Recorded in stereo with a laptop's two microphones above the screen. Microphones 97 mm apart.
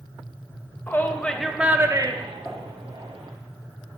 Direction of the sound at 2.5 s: 5° right (ahead or behind).